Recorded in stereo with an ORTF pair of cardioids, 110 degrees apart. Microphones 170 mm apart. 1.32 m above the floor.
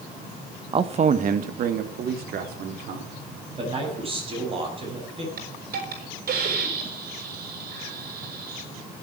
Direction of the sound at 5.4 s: 60° right.